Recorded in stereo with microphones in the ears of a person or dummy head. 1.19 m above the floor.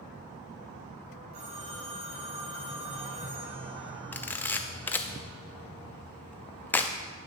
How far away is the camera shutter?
About 0.5 m.